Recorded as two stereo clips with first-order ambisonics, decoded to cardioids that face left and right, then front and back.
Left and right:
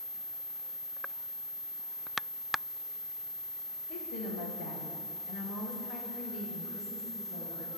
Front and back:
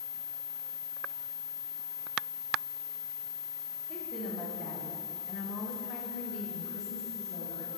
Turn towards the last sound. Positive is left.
turn(degrees=5)